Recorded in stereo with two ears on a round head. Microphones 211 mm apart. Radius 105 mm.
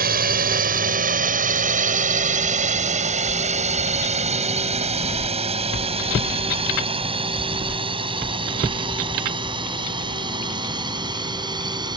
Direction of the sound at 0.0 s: 40° right (ahead or behind).